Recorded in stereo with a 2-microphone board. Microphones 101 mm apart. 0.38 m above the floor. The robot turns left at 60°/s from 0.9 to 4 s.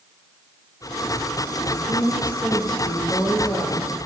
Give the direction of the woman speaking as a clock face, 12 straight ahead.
4 o'clock.